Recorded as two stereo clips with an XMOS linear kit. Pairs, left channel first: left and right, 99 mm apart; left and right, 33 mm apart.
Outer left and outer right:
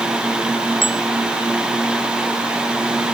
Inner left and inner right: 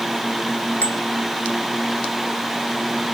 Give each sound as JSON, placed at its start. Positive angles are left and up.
{"t": 0.8, "sound": "a bicycle bell", "side_deg": 60}